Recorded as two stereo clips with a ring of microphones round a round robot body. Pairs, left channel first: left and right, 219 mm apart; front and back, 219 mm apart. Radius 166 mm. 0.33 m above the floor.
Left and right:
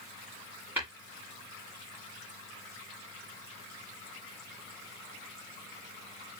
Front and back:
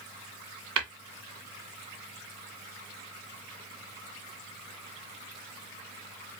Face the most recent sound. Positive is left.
turn(degrees=-175)